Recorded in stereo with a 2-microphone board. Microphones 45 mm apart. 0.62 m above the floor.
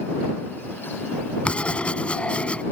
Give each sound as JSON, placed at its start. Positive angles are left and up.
{"t": 1.4, "sound": "writing", "side_deg": 30}